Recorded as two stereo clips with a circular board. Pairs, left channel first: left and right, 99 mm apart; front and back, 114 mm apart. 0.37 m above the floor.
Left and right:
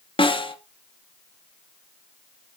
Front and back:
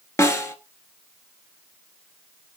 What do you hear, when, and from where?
0.2 s a snare drum: 65° left, 1.5 m